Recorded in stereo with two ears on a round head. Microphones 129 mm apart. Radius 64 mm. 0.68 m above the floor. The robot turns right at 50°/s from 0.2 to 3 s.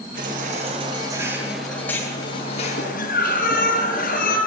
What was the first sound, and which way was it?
A baby crying, 70° right.